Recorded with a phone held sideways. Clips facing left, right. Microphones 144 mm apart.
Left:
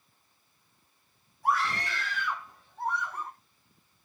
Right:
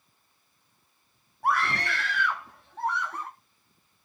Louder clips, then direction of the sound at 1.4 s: Right 2 dB; 65° right (ahead or behind).